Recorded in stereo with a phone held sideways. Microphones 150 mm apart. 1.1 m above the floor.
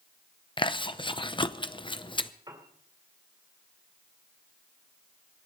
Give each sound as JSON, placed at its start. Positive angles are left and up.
{"t": 0.6, "sound": "chewing", "side_deg": 30, "distance_m": 0.6}
{"t": 2.5, "sound": "a piano", "side_deg": -25, "distance_m": 2.5}